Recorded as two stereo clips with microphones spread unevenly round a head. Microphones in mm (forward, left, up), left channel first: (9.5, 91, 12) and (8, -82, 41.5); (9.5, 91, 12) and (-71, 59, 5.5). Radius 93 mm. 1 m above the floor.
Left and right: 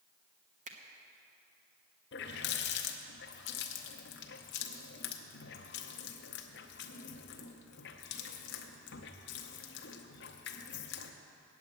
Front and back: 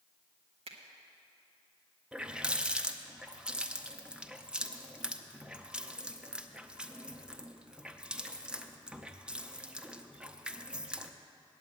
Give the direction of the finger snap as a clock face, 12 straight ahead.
5 o'clock.